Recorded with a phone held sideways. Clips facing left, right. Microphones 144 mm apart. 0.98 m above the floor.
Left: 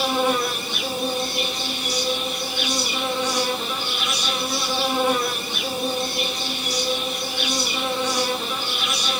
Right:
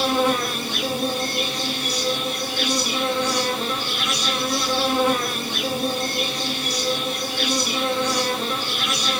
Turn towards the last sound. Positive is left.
turn(degrees=-60)  # may be behind; listen again after turning